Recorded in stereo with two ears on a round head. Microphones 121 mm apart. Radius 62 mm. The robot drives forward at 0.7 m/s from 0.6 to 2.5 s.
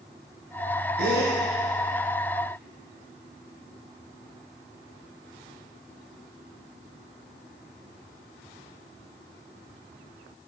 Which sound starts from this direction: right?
A gasp, at 1.0 s.